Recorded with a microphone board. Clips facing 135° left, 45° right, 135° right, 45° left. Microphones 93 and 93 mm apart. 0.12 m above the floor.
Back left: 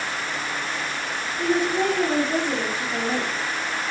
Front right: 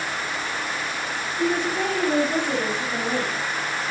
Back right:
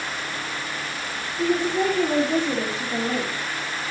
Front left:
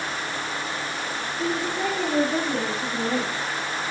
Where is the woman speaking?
140° right, 9.5 m; by 3.3 s 145° right, 8.5 m.